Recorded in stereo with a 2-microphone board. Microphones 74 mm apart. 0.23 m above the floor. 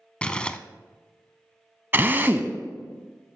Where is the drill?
30° right (ahead or behind), 0.6 m.